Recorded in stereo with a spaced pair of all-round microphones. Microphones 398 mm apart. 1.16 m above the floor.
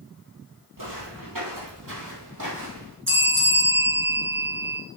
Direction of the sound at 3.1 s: 30° right (ahead or behind).